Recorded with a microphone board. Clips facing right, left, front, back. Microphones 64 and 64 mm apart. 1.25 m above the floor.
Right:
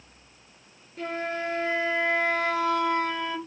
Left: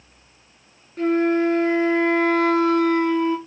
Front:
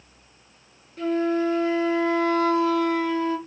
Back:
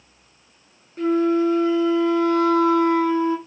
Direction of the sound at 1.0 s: 125° left.